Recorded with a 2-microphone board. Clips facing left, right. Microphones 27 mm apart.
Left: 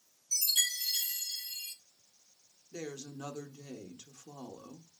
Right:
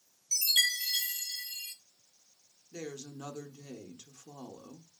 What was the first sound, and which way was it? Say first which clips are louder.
A chime: right 4 dB; 40° right (ahead or behind).